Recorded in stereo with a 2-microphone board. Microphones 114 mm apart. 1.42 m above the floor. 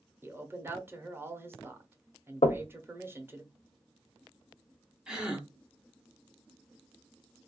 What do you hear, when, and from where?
0.2 s a man speaking: 20° right (ahead or behind), 0.8 m
2.4 s knocking: 80° left, 0.5 m
5.1 s a gasp: 10° right (ahead or behind), 0.9 m